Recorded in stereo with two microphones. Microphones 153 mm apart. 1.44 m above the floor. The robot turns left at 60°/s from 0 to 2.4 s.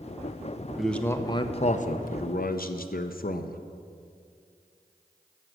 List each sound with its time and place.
0.8 s a man speaking: 175° right, 0.6 m; by 3.6 s 85° left, 0.6 m